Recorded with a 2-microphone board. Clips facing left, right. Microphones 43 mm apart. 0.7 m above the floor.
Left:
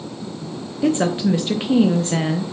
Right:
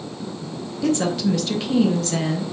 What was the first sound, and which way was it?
A woman speaking, 25° left (ahead or behind).